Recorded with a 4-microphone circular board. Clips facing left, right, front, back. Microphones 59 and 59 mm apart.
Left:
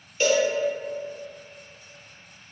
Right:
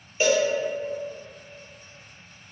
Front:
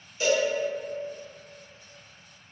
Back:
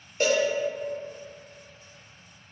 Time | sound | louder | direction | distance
0.2 | a cowbell | even, back 1 dB | 160° right | 0.7 m